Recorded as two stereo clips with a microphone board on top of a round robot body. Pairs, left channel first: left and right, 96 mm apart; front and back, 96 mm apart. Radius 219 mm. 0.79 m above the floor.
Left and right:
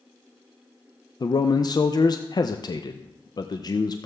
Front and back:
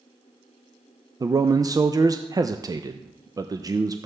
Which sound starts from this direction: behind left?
A man speaking, at 1.2 s.